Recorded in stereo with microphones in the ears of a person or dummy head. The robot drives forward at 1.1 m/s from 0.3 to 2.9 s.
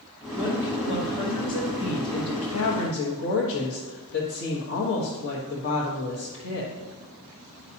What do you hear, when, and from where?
0.3 s a woman speaking: 30° left (ahead or behind), 2.5 m; by 6.7 s 70° left (ahead or behind), 1.3 m